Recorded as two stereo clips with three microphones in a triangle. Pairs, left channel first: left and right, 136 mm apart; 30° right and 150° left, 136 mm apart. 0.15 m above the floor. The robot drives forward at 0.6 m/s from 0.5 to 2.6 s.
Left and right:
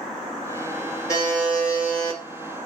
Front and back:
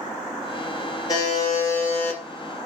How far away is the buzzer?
About 2.5 m.